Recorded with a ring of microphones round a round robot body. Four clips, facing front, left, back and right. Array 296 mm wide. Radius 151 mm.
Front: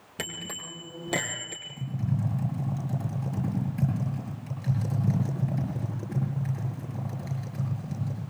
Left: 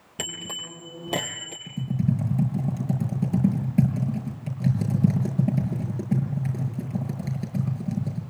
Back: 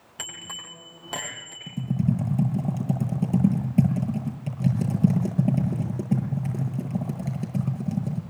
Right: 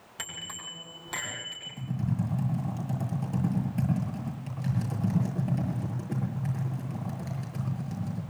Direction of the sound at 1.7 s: 145° left.